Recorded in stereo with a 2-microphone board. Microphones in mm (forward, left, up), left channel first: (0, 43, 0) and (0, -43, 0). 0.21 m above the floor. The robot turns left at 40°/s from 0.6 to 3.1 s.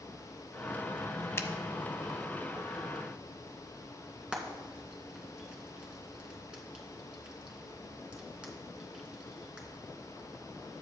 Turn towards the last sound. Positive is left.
turn(degrees=-10)  # may be behind; listen again after turning